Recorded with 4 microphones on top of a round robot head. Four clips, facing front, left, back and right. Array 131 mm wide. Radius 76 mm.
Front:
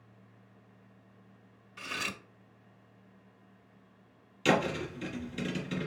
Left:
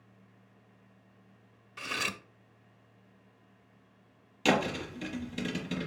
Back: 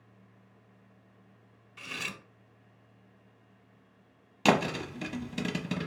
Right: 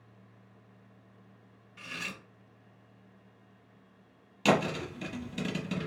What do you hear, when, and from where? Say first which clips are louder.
1.8 s cutlery clinking: left 6 dB, front 3 dB; 90° left, 0.7 m
4.5 s a thud: right 1 dB, back 2 dB; straight behind, 1.1 m